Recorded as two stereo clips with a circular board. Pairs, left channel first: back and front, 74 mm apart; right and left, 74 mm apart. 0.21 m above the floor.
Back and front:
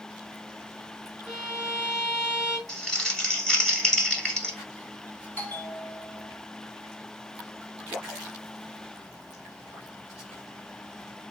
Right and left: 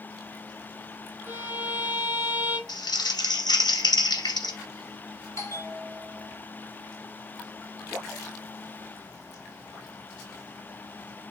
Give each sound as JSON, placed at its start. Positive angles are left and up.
{"t": 1.3, "sound": "a violin", "azimuth_deg": 70, "distance_m": 1.1}
{"t": 2.7, "sound": "crumpling", "azimuth_deg": -100, "distance_m": 1.5}
{"t": 5.4, "sound": "a bell", "azimuth_deg": -120, "distance_m": 1.7}